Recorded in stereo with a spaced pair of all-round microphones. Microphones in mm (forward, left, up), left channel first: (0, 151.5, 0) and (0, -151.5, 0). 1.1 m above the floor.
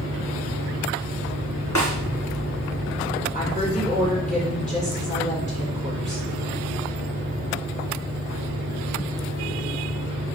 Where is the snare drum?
70° left (ahead or behind), 2.5 m.